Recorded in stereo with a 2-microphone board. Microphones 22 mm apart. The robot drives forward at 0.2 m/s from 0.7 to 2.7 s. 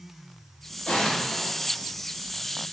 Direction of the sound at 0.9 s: 65° left (ahead or behind).